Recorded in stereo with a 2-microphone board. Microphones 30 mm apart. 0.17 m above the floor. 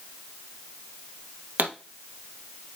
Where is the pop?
75° right (ahead or behind), 1.4 m.